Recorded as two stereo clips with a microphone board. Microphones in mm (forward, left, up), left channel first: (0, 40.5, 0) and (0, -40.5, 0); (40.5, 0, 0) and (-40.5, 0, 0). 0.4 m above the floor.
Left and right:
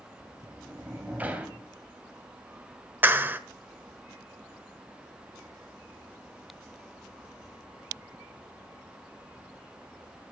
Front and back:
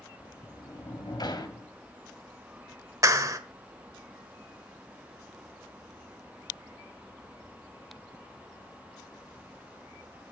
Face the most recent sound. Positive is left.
turn(degrees=-145)